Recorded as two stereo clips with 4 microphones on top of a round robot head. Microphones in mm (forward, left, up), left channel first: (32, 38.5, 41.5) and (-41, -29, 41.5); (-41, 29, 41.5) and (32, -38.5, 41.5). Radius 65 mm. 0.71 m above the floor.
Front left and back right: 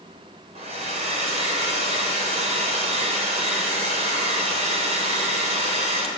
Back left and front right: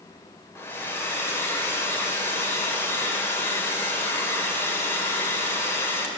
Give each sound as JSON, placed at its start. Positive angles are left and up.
{"t": 0.6, "sound": "a hair dryer", "azimuth_deg": -155, "distance_m": 2.0}